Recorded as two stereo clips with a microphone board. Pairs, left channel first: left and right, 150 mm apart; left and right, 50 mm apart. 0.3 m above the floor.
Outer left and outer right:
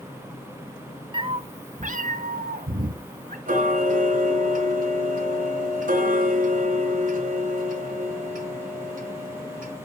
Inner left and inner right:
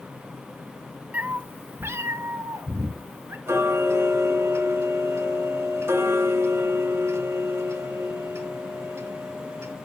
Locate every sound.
1.1 s a cat meowing: 35° right (ahead or behind), 0.9 m; by 3.4 s 75° right (ahead or behind), 1.7 m
3.5 s ticking: 70° right (ahead or behind), 2.5 m